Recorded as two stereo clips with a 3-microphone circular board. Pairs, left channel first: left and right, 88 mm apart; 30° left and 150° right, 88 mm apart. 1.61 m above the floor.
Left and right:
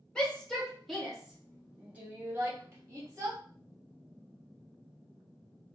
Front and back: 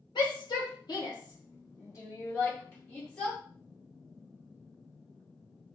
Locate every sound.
0.1 s a shout: 15° left, 1.8 m; by 3.4 s 45° right, 2 m